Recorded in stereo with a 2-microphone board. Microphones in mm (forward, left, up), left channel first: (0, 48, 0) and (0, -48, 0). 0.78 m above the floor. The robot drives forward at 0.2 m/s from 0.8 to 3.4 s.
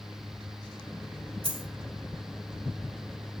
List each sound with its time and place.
1.4 s a dropped coin: 70° right (ahead or behind), 1.6 m